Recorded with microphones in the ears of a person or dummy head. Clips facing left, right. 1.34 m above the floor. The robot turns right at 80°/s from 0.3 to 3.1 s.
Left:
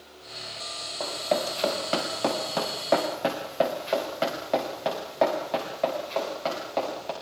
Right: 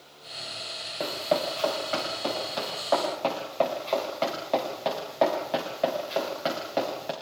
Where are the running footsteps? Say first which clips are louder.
Even; 25° right (ahead or behind), 7.5 m; by 7.1 s 15° right (ahead or behind), 9 m.